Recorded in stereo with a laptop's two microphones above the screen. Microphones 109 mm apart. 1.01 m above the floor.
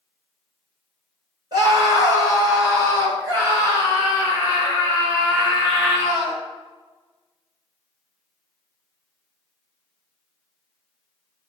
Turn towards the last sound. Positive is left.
turn(degrees=-25)  # may be behind; listen again after turning